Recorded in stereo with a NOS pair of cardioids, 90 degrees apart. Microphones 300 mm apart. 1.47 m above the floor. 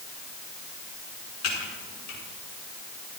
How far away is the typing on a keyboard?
About 5 m.